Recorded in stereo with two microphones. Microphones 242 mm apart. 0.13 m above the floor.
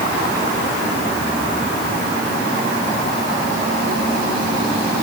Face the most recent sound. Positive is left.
No sound to turn to.